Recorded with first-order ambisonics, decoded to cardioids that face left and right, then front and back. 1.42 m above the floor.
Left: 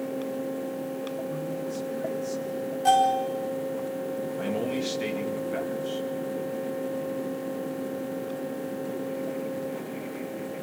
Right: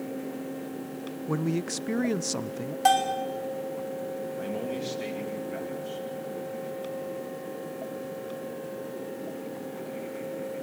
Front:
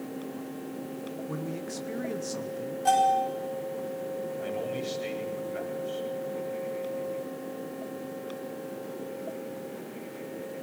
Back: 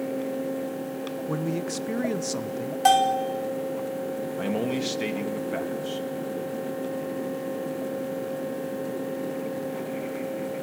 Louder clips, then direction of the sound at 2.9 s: Left 2 dB, back 3 dB; 145° right.